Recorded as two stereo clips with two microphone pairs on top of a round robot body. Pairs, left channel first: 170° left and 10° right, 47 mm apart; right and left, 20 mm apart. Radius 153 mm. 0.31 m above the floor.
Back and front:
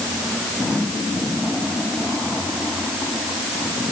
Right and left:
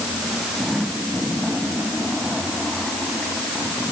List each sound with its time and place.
Only background noise.